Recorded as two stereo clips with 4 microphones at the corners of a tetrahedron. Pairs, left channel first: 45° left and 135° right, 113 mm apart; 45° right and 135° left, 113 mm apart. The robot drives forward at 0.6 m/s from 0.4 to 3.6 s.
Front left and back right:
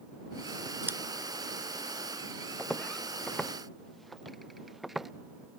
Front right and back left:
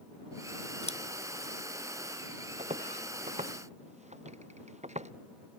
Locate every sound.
0.8 s scissors: 65° right
2.6 s footsteps: 125° left; by 5.1 s 140° left